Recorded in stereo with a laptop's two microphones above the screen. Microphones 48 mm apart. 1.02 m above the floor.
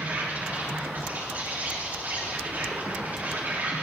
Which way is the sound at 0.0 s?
35° right (ahead or behind).